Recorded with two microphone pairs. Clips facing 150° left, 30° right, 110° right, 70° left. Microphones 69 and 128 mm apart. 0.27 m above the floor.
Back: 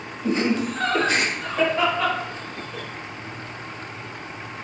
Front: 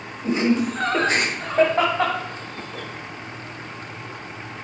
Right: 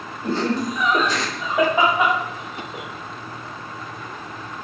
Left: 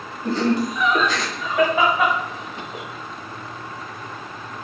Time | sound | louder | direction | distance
0.2 | laughter | front 2 dB, left 2 dB | 120° right | 1.2 m